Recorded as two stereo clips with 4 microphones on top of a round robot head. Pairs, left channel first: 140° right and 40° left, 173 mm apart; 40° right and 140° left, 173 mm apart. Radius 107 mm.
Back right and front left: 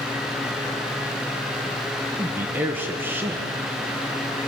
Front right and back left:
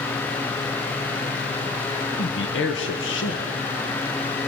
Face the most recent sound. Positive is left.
turn(degrees=-35)